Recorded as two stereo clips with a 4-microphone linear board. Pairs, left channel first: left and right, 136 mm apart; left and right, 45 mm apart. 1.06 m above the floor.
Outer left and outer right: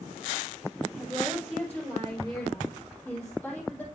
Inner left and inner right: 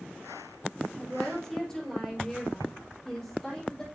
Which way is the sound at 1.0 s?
10° left (ahead or behind).